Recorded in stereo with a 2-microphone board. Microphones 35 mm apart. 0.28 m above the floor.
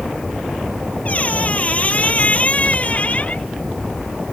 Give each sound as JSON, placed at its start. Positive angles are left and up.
{"t": 1.1, "sound": "a squeak", "side_deg": 40}